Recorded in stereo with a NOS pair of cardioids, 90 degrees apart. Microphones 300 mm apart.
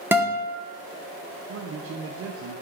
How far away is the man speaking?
About 0.7 m.